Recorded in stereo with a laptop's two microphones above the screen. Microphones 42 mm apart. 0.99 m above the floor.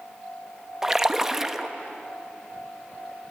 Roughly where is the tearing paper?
No tearing paper in this recording.